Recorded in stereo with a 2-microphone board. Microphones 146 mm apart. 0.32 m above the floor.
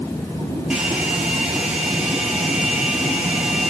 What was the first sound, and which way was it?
A hair dryer, 5° right (ahead or behind).